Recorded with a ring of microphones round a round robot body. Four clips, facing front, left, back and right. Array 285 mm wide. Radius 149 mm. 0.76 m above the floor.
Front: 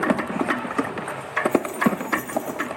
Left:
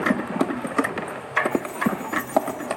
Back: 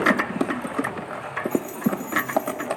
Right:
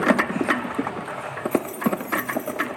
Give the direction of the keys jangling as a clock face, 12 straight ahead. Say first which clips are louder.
Right 1 dB, front 2 dB; 4 o'clock.